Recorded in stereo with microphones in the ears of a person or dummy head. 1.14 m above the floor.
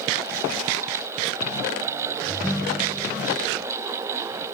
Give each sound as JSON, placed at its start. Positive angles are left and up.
{"t": 2.3, "sound": "a ringtone", "side_deg": 0}